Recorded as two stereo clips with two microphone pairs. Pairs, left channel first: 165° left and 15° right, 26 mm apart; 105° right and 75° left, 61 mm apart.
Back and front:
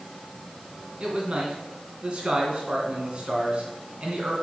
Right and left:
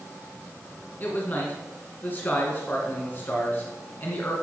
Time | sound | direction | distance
1.0 | a man speaking | 50° right | 2 m